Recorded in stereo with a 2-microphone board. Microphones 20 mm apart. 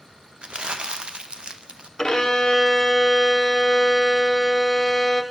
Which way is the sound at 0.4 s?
55° right (ahead or behind).